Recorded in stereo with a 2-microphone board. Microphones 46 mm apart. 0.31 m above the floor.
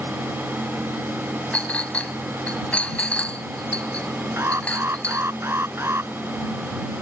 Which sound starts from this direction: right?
An alarm, at 4.4 s.